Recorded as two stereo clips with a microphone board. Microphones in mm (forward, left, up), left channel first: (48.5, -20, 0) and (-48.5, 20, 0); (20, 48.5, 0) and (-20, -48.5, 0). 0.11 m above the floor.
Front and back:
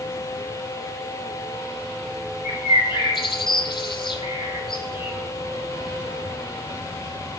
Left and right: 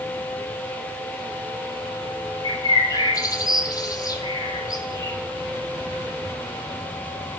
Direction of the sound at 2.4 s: 15° left.